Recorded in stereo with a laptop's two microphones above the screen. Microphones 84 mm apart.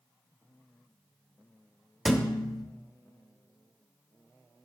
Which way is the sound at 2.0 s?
Centre (ahead or behind).